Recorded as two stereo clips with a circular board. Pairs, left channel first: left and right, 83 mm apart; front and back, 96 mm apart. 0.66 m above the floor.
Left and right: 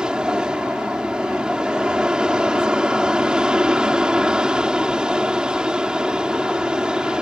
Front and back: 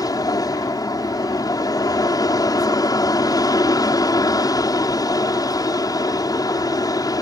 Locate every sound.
0.0 s an aircraft: 15° right